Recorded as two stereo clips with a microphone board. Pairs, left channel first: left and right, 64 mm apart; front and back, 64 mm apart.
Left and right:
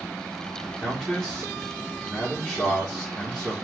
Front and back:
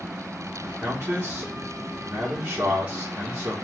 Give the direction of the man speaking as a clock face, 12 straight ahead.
5 o'clock.